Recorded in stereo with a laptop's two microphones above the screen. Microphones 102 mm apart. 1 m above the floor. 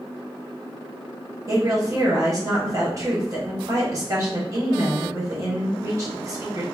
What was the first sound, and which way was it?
A woman speaking, 35° right (ahead or behind).